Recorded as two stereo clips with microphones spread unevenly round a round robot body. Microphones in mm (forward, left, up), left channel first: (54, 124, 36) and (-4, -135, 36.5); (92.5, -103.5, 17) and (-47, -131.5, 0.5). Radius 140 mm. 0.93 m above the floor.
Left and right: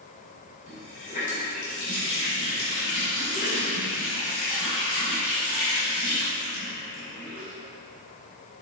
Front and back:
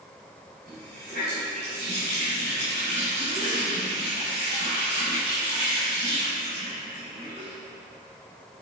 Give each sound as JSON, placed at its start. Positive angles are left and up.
{"t": 0.7, "sound": "a running tap", "azimuth_deg": 145, "distance_m": 2.5}